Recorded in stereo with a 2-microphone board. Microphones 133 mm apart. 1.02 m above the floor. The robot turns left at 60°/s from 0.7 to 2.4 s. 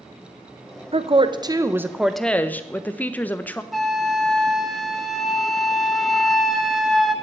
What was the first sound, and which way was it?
A woman speaking, 110° right.